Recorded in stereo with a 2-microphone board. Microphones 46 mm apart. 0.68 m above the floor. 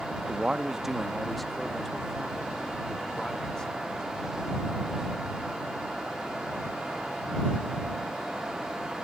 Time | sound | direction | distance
0.2 | a man speaking | 25° right (ahead or behind) | ?